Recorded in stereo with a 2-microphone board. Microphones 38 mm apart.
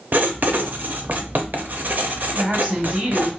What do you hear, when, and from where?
0.1 s writing: 55° right (ahead or behind), 0.5 m
2.4 s a woman speaking: 40° right (ahead or behind), 2.5 m